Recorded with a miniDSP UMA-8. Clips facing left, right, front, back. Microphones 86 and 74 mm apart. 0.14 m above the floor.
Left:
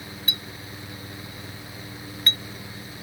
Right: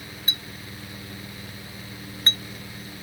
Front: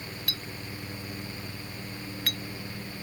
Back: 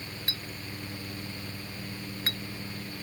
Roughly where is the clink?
Behind right.